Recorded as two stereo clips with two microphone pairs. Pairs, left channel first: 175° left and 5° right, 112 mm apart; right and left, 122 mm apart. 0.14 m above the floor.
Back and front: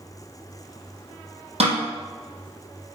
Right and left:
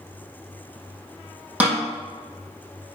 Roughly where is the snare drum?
Ahead.